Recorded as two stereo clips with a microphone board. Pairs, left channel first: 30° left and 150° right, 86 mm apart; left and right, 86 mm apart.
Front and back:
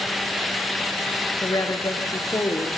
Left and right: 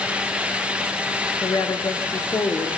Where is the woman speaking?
65° left, 2.5 m.